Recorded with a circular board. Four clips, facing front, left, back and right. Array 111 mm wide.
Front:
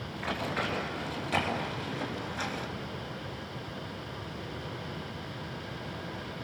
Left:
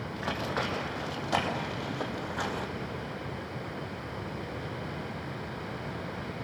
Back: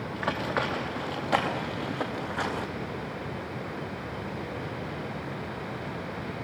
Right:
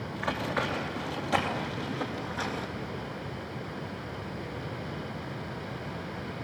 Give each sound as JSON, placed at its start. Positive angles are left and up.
{"t": 0.1, "sound": "running footsteps", "azimuth_deg": 170, "distance_m": 5.0}